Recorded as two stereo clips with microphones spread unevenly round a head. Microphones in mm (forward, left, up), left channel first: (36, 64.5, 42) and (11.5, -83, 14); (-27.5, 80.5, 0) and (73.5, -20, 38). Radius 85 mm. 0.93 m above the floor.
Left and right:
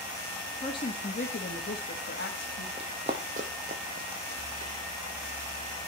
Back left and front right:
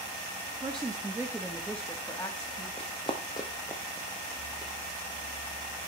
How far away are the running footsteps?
About 1.9 m.